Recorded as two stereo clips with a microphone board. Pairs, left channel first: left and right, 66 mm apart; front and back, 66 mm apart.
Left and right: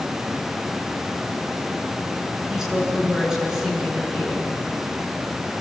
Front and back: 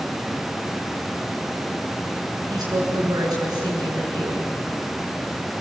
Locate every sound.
2.5 s a woman speaking: 170° right, 8.5 m